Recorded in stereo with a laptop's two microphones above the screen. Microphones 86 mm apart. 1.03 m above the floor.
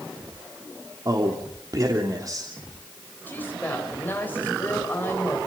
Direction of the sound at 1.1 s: 40° right (ahead or behind).